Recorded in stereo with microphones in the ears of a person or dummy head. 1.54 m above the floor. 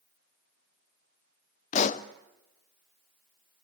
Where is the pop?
45° left (ahead or behind), 0.7 m.